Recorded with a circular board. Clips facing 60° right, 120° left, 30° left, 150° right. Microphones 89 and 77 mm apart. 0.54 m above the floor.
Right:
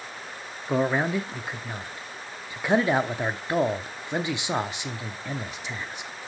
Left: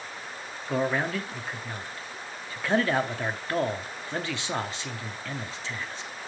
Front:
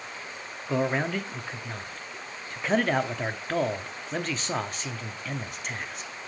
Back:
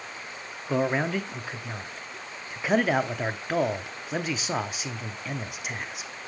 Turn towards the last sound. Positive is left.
turn(degrees=-75)